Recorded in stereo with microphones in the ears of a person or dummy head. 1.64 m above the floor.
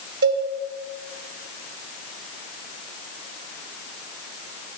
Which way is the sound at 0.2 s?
60° right (ahead or behind).